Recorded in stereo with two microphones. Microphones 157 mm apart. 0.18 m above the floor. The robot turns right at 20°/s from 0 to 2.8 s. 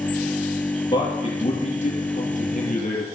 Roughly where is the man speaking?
Ahead left.